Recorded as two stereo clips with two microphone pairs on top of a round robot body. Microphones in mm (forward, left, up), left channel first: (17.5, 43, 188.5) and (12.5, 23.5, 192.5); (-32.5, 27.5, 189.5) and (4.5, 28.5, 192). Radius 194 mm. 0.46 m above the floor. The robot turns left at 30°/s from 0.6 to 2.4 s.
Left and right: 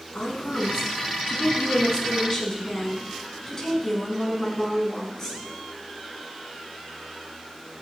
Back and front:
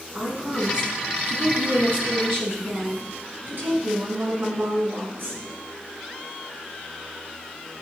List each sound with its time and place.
0.1 s a woman speaking: 65° left, 6 m; by 5.4 s 15° left, 6 m